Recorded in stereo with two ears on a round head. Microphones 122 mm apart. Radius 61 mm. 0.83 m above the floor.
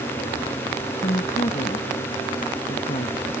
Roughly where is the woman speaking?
Left.